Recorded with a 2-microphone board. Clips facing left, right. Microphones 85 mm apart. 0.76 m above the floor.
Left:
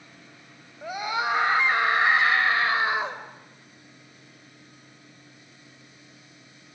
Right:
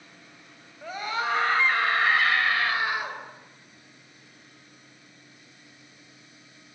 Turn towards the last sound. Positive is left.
turn(degrees=25)  # may be behind; listen again after turning